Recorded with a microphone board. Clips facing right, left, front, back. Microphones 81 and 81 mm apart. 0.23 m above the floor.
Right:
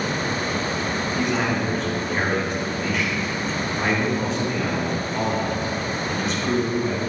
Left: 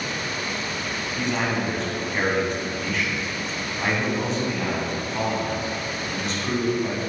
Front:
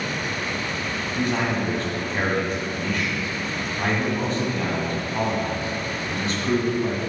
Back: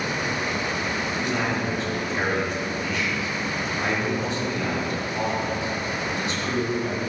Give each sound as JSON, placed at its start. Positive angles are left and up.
{"t": 1.2, "sound": "a man speaking", "azimuth_deg": 0, "distance_m": 1.9}